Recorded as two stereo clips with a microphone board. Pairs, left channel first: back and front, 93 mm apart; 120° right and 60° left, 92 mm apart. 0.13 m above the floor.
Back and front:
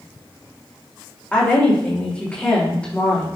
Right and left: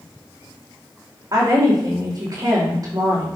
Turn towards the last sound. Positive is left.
turn(degrees=105)